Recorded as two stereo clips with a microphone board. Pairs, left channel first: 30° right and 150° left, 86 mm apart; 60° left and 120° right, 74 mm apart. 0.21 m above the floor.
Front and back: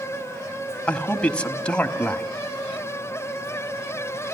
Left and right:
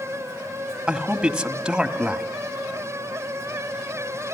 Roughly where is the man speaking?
Ahead right.